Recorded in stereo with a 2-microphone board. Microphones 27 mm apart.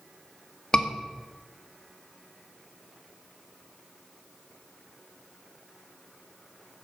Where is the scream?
35° left (ahead or behind), 1.5 m.